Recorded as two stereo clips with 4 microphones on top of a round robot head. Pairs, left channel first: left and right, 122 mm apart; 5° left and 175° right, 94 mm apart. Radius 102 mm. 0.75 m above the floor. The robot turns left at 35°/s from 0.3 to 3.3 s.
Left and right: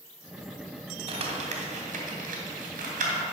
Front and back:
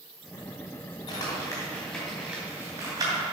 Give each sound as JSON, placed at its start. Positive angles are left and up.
{"t": 1.1, "sound": "crumpling", "azimuth_deg": -45, "distance_m": 2.0}